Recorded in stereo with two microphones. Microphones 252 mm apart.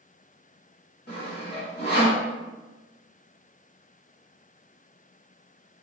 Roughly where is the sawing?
Left.